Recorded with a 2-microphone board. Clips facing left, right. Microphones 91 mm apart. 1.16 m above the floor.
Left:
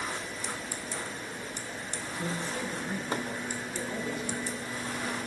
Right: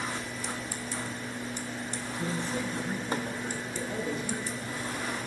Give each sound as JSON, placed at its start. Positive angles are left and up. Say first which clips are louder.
{"t": 2.2, "sound": "a man speaking", "louder": "right 2 dB", "side_deg": -25, "distance_m": 6.5}